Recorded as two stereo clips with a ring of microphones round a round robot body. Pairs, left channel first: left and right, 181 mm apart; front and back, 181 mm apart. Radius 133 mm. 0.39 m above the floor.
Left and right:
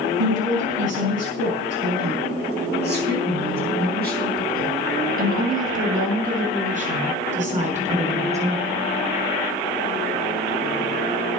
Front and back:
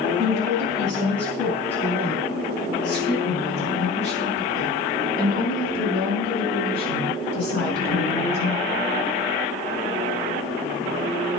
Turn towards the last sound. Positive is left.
turn(degrees=-35)